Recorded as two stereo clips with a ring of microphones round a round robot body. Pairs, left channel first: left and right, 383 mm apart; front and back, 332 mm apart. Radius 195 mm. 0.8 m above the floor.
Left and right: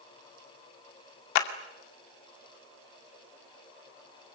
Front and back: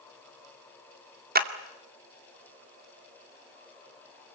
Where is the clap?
115° left, 2.5 m.